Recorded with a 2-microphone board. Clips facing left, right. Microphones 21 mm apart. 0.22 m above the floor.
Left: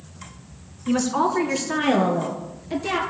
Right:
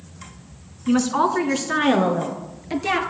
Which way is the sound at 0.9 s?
15° right (ahead or behind).